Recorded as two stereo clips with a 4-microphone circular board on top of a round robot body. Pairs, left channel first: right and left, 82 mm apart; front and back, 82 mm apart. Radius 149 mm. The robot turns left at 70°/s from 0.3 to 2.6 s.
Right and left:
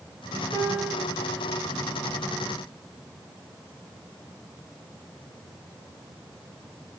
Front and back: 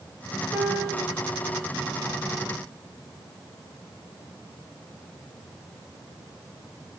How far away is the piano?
About 5 m.